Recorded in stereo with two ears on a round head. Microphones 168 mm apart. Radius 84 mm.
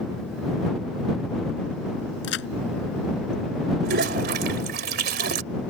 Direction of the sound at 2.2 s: 65° left (ahead or behind).